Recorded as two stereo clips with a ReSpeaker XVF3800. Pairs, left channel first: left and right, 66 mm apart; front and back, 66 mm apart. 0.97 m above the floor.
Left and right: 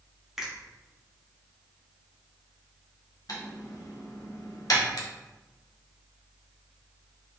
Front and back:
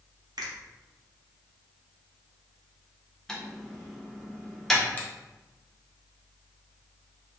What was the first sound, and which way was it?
A finger snap, 175° right.